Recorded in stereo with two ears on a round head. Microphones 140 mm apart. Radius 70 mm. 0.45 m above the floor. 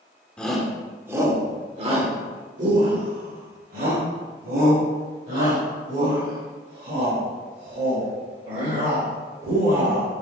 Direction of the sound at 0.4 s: 5° left (ahead or behind).